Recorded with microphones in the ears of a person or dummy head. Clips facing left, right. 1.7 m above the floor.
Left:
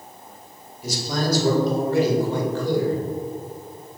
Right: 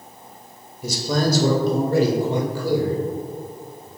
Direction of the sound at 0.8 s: 80° right.